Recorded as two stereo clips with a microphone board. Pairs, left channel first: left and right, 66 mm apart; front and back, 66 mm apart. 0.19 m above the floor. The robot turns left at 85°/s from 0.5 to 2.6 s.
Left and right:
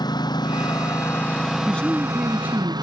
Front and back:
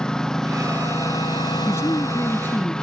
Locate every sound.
0.0 s a lawn mower: 80° left; by 2.8 s 80° right
1.7 s a man speaking: 30° left; by 2.7 s 50° right